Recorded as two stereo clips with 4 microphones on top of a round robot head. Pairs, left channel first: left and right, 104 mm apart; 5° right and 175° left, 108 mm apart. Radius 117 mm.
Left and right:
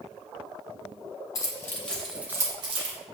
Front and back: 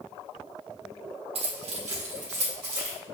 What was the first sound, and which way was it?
Keys jangling, 145° left.